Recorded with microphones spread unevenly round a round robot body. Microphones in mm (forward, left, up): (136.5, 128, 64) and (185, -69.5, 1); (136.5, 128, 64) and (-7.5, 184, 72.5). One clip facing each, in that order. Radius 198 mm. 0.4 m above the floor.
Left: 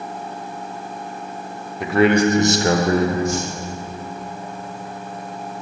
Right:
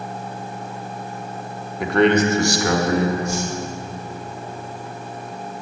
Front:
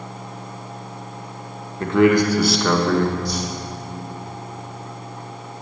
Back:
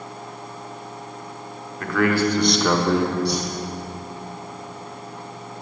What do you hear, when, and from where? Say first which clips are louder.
1.8 s a man speaking: left 1 dB, front 5 dB; 20° right, 1.1 m; by 3.1 s 110° left, 1.1 m
3.2 s a whoosh: left 1 dB, back 2 dB; 135° left, 3 m